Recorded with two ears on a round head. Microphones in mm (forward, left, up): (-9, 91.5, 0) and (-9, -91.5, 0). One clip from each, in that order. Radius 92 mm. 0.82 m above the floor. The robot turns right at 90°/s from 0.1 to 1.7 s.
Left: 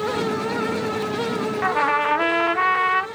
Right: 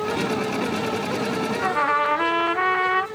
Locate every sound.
1.6 s a trumpet: 15° left (ahead or behind), 0.6 m; by 3.1 s 10° left (ahead or behind), 0.6 m